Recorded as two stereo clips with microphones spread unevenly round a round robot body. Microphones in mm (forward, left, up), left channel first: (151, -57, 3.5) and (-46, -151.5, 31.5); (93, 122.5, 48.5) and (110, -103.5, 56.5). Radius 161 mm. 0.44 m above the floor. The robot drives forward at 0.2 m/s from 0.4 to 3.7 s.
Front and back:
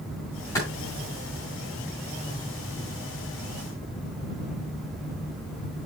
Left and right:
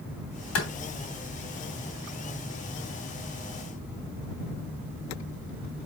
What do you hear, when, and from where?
0.6 s a clap: 105° left, 3 m